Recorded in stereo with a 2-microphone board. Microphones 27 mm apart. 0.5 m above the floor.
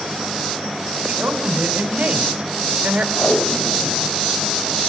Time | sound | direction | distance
1.1 | a woman speaking | 55° right (ahead or behind) | 3 m
3.2 | tape being pulled | 35° left (ahead or behind) | 1.9 m